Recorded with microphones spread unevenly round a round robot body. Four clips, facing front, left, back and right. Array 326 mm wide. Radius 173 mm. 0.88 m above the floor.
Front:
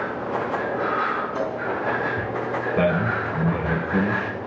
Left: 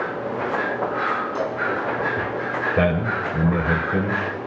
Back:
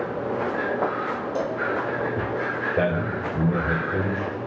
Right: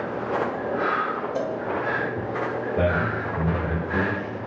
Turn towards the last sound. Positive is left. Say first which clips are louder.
# left 2 dB, front 3 dB
turn(degrees=95)